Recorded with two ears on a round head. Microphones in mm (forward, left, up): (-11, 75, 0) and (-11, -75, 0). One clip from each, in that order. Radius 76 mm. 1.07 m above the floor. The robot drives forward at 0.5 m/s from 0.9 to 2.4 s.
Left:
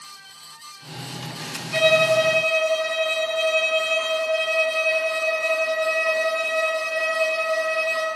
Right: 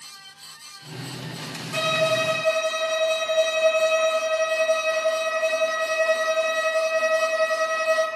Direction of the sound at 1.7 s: 30° left (ahead or behind).